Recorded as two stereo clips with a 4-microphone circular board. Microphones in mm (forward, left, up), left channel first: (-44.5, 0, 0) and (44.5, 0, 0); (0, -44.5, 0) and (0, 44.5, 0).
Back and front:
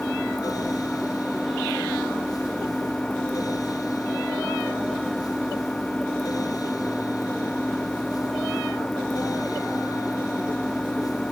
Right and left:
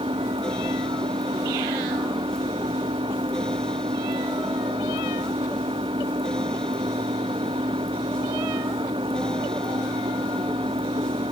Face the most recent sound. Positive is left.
turn(degrees=100)